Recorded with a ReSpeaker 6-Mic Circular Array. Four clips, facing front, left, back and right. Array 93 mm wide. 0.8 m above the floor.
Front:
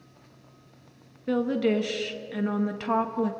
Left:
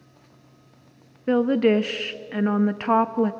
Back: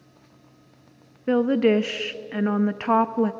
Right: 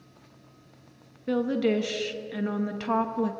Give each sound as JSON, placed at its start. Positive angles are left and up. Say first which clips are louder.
{"t": 1.3, "sound": "a woman speaking", "louder": "left 6 dB, back 5 dB", "azimuth_deg": 135, "distance_m": 0.7}